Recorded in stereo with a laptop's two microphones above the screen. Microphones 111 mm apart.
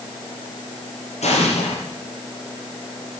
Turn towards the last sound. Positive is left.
turn(degrees=80)